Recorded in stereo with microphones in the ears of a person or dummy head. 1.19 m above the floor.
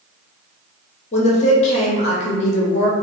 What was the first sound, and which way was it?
A woman speaking, 40° left (ahead or behind).